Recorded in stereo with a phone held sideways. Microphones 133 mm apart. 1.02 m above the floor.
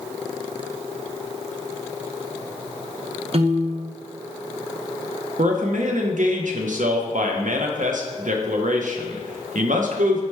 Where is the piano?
50° right (ahead or behind), 0.6 m.